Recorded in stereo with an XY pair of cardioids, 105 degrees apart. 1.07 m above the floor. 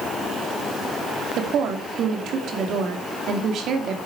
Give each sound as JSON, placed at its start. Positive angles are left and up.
{"t": 1.4, "sound": "a woman speaking", "azimuth_deg": -65, "distance_m": 2.5}